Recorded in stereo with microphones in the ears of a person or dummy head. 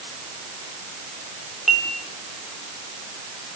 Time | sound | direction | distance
1.7 | dishes clattering | 5° right (ahead or behind) | 4.5 m